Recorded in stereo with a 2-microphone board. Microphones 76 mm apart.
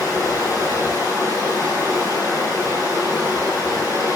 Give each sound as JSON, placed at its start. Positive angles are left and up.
{"t": 0.0, "sound": "running water", "side_deg": 70, "distance_m": 0.8}